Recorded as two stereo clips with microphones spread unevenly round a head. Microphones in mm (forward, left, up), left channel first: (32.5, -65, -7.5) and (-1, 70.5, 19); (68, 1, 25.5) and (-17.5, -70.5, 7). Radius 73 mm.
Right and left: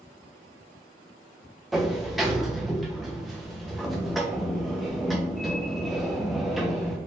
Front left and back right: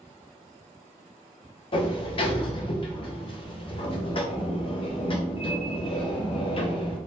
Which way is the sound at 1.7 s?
20° left.